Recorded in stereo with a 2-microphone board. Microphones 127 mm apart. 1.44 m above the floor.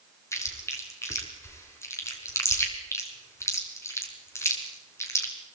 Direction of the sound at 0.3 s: 20° left (ahead or behind).